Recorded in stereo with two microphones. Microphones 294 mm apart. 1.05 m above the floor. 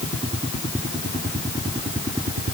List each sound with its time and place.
Only background noise.